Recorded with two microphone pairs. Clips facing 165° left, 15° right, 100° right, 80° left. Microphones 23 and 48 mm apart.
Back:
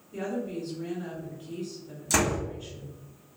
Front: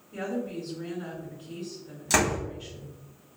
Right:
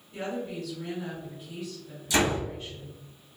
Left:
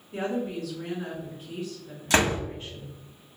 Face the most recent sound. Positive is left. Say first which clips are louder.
# front 1 dB, left 2 dB
turn(degrees=50)